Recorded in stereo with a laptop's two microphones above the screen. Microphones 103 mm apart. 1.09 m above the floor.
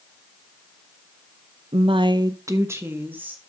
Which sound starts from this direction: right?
A woman speaking, at 1.7 s.